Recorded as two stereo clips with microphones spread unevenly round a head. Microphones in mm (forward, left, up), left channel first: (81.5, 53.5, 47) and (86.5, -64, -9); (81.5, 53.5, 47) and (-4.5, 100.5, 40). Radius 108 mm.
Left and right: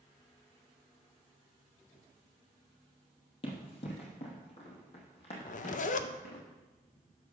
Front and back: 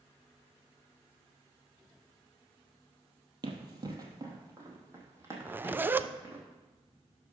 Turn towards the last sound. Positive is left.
turn(degrees=95)